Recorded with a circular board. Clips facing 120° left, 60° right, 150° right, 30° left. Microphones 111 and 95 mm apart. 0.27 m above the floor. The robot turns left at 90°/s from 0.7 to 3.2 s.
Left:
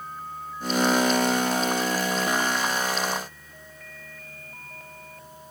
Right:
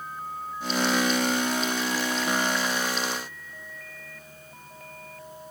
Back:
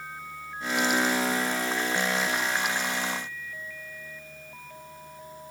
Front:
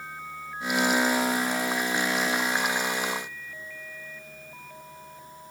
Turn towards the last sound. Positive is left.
No sound to turn to.